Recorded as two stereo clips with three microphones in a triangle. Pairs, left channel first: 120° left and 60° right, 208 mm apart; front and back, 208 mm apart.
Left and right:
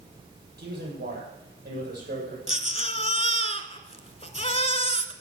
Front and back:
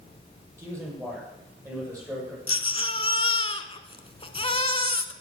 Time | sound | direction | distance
0.6 | a man speaking | 100° right | 6.5 m
2.5 | a baby crying | 65° left | 0.9 m